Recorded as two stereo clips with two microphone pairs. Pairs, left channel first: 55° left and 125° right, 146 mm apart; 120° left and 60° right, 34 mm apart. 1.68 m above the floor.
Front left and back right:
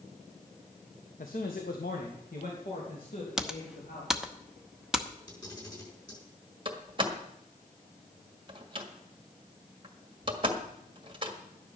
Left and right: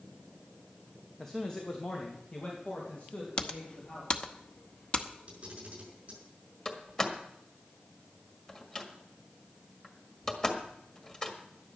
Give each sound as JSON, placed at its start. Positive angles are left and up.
{"t": 1.2, "sound": "a man speaking", "azimuth_deg": 40, "distance_m": 1.3}
{"t": 3.4, "sound": "typing on a keyboard", "azimuth_deg": 150, "distance_m": 0.9}
{"t": 5.3, "sound": "a camera shutter", "azimuth_deg": -10, "distance_m": 5.0}
{"t": 6.7, "sound": "a door slam", "azimuth_deg": -175, "distance_m": 1.7}